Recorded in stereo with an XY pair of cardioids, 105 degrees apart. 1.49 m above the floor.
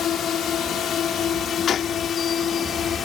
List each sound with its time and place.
0.0 s a drone: 65° left; by 3.1 s 55° left
1.7 s a gunshot: 60° left